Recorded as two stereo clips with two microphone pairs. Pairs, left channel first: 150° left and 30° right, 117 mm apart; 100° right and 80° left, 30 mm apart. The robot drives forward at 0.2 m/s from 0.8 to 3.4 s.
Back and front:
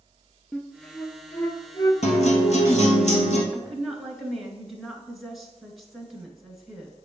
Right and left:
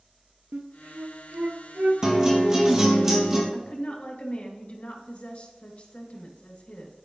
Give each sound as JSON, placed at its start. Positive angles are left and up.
{"t": 0.5, "sound": "a flute", "azimuth_deg": 70, "distance_m": 0.7}
{"t": 2.0, "sound": "a guitar", "azimuth_deg": 150, "distance_m": 1.6}
{"t": 3.5, "sound": "a woman speaking", "azimuth_deg": -120, "distance_m": 2.0}